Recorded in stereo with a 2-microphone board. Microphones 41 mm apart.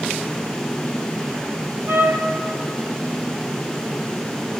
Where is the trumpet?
60° right (ahead or behind), 2.5 m.